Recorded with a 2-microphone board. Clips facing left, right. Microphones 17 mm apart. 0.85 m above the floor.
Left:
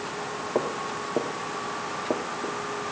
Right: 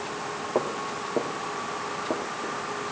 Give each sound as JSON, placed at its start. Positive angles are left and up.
{"t": 0.6, "sound": "footsteps", "side_deg": -10, "distance_m": 1.5}